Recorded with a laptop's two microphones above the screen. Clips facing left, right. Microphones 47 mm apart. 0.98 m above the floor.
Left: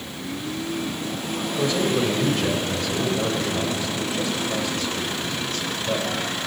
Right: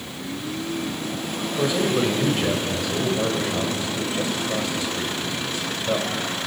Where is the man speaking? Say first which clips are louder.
Right 1 dB; 15° right (ahead or behind), 5.5 m.